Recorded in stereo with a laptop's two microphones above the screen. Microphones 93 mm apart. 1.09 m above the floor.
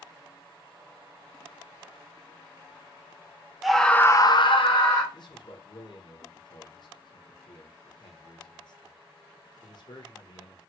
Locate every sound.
3.6 s a scream: centre (ahead or behind), 0.8 m; by 5.0 s 60° left (ahead or behind), 1.0 m
5.1 s a man speaking: 50° left (ahead or behind), 0.7 m